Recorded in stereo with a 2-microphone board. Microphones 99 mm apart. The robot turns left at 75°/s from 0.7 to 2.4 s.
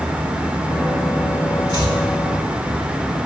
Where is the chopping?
50° left (ahead or behind), 1.8 m; by 2.0 s 40° left (ahead or behind), 1.8 m.